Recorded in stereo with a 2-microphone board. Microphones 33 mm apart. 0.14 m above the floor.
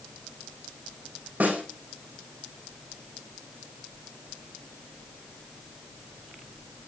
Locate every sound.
1.4 s a snare drum: 70° right (ahead or behind), 4 m